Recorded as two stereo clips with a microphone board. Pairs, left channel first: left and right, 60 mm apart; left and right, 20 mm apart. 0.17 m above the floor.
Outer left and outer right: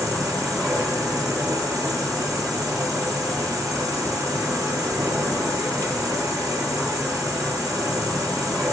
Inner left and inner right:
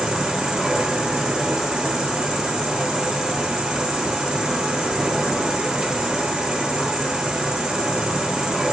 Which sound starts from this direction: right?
An insect, at 0.0 s.